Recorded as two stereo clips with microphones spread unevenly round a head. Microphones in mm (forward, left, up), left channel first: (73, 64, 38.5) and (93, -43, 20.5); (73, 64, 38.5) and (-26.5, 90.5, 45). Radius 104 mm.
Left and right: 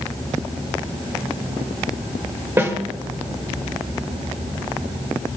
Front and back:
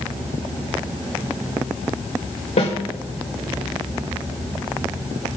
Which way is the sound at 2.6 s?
10° right.